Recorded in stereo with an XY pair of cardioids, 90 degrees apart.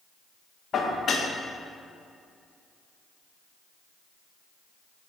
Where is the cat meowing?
I don't hear a cat meowing.